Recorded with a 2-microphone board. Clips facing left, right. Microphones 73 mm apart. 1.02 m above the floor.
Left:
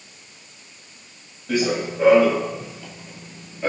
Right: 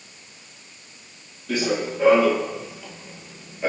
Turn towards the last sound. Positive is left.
turn(degrees=-15)  # may be behind; listen again after turning